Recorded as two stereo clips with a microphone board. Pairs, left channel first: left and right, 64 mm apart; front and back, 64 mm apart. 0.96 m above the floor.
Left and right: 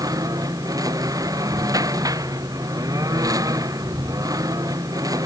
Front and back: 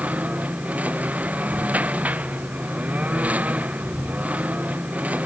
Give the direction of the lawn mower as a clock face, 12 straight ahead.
4 o'clock.